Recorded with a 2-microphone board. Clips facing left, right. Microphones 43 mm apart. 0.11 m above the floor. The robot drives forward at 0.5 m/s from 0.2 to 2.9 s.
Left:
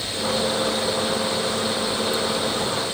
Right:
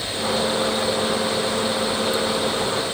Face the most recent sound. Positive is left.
No sound to turn to.